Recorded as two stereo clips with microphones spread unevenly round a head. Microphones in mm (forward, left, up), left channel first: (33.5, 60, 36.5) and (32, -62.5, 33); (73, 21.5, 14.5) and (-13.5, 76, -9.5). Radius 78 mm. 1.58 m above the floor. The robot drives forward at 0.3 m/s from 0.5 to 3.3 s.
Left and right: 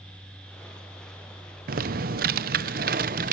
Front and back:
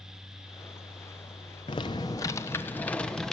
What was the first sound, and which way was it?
Typing on a keyboard, 90° right.